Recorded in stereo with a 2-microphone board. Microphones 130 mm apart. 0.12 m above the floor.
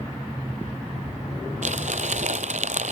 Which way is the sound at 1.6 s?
70° right (ahead or behind).